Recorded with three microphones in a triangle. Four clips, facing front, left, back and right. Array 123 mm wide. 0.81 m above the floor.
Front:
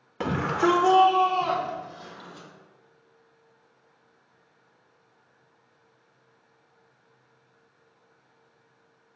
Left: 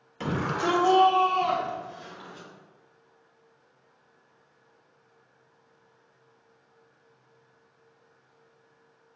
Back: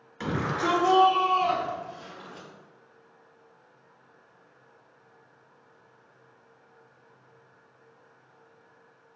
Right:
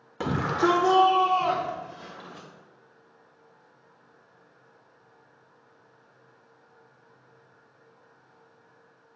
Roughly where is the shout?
Ahead right.